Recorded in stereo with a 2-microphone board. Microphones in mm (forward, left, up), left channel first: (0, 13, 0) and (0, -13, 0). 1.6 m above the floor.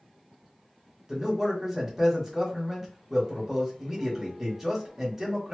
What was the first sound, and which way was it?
A man speaking, 20° right (ahead or behind).